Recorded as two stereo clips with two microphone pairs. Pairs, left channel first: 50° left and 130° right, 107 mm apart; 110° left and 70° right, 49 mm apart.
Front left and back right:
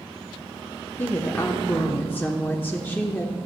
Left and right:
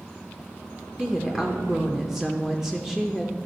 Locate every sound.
1.0 s a woman speaking: 5° left, 0.8 m